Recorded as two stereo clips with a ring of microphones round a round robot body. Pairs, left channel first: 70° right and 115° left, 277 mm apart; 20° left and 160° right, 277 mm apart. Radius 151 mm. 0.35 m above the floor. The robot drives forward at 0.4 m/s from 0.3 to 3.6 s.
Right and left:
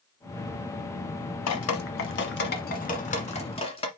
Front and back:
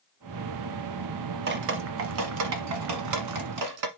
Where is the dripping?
105° right, 1.0 m; by 3.9 s 140° right, 1.4 m.